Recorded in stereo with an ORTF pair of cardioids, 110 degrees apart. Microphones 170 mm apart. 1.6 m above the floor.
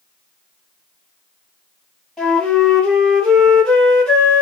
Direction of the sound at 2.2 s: 5° left.